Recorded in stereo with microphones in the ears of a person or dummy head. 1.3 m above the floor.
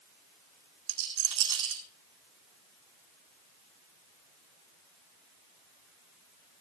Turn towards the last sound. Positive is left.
turn(degrees=-75)  # may be behind; listen again after turning